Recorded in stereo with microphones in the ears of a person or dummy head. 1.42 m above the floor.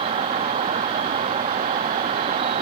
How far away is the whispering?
I don't hear whispering.